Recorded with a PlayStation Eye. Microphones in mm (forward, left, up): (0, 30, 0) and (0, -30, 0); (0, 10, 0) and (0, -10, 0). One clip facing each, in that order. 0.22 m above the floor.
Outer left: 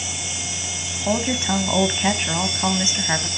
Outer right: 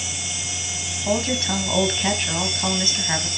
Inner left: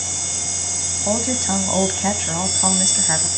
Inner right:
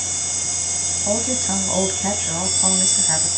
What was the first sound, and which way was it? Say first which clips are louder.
A woman speaking: outer left 1 dB, inner left 2 dB; 15° left (ahead or behind).